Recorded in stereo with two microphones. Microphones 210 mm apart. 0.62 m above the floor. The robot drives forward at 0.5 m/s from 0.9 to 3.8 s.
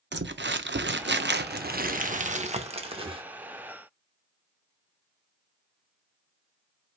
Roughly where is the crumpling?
Right.